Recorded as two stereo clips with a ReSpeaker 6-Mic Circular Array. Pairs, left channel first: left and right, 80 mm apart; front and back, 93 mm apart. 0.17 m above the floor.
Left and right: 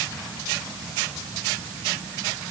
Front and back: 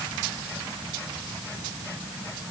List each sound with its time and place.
Only background noise.